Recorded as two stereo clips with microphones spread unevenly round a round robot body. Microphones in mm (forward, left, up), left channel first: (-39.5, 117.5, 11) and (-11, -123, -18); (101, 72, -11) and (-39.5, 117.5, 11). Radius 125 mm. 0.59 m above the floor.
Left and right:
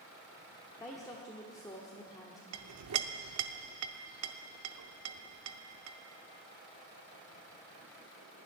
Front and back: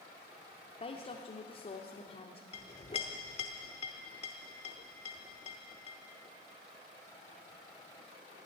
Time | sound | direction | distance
0.8 | a woman speaking | 15° left | 1.0 m
2.5 | a clink | 75° right | 0.8 m